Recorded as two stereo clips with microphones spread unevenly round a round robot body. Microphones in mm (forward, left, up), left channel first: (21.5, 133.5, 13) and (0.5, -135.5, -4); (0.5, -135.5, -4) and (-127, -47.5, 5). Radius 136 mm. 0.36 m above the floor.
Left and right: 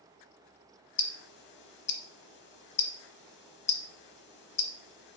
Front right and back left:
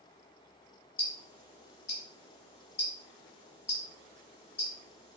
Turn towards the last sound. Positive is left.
turn(degrees=35)